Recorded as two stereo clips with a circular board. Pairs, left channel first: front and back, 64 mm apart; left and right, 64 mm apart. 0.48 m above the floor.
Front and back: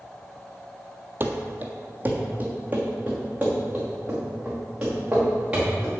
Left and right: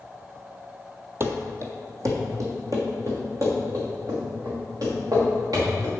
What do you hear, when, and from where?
1.2 s running footsteps: 135° right, 0.8 m; by 5.9 s 110° right, 4 m